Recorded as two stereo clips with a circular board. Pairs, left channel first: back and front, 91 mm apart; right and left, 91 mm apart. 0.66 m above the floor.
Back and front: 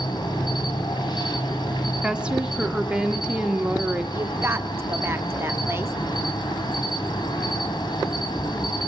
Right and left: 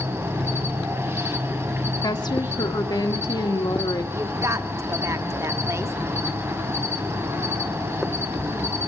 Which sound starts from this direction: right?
A woman speaking, at 2.0 s.